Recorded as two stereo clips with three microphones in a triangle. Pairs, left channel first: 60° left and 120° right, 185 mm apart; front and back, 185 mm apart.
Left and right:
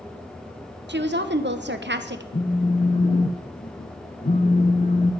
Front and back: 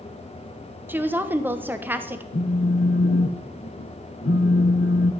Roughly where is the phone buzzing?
Ahead.